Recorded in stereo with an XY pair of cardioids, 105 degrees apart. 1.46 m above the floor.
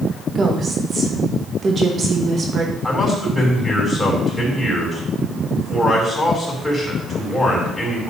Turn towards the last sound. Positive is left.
turn(degrees=10)